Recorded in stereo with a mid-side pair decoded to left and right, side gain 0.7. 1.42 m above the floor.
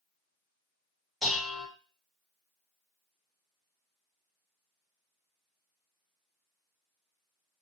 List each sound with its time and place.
1.2 s dishes clattering: 5° left, 1.3 m